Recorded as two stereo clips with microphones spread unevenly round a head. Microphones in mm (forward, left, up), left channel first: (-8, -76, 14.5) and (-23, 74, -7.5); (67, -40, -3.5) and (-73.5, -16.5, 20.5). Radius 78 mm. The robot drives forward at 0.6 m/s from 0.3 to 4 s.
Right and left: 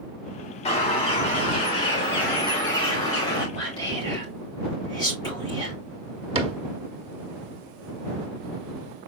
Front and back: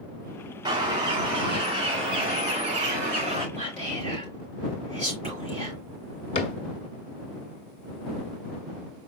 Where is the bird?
130° right, 3 m; by 3.5 s 150° right, 4 m.